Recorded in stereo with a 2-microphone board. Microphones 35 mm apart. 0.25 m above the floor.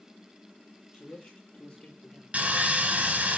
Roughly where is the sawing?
Right.